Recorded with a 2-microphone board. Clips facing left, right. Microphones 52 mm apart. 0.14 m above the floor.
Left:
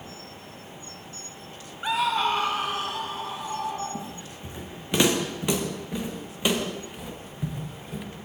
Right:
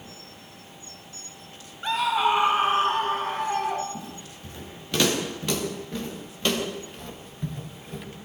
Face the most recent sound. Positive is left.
turn(degrees=5)  # may be behind; listen again after turning